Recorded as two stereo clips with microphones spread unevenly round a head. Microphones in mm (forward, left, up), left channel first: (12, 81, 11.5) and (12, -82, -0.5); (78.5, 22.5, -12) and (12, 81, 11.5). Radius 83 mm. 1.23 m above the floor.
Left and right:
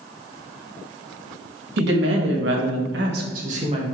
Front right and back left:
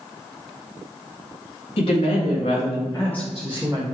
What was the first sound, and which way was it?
A woman speaking, 70° right.